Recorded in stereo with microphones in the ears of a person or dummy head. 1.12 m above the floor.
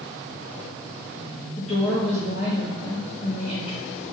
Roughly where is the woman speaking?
Left.